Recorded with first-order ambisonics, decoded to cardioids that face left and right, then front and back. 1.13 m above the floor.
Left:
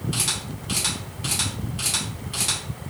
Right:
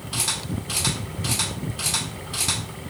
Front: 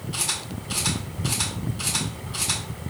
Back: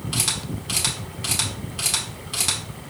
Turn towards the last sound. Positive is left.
turn(degrees=170)